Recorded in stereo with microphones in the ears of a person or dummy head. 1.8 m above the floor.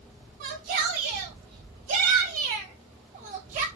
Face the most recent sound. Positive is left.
turn(degrees=-40)  # may be behind; listen again after turning